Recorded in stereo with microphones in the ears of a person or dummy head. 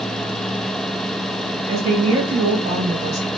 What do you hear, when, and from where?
1.7 s a woman speaking: 25° right (ahead or behind), 1.7 m